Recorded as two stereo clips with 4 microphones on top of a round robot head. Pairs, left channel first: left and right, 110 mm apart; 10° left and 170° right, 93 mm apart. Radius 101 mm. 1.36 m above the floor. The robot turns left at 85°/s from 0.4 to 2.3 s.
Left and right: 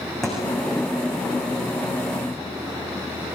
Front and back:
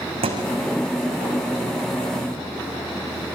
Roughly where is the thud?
Behind.